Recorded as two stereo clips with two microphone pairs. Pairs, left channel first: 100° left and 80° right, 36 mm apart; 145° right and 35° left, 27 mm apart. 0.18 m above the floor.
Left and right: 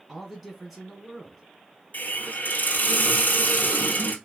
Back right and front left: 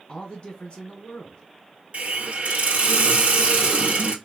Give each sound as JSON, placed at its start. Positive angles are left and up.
{"t": 0.1, "sound": "a man speaking", "azimuth_deg": -160, "distance_m": 1.5}
{"t": 1.9, "sound": "a hiss", "azimuth_deg": 75, "distance_m": 0.7}